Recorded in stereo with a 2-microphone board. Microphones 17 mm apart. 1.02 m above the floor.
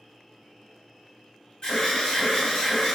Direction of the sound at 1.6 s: 50° left (ahead or behind).